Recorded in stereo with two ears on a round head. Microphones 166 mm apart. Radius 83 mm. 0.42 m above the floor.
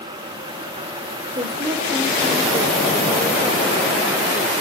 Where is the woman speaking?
20° right (ahead or behind), 1.5 m.